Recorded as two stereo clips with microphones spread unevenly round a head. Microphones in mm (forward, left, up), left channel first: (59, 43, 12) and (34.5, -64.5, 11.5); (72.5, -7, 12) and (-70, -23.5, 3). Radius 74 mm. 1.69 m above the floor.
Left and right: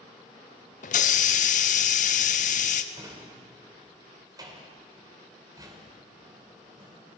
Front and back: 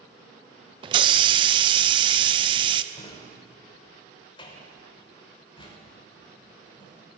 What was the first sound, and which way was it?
A hiss, 125° left.